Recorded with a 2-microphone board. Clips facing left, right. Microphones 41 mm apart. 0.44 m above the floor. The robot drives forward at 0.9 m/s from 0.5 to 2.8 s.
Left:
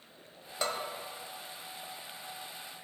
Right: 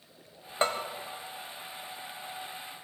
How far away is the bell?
About 1.0 m.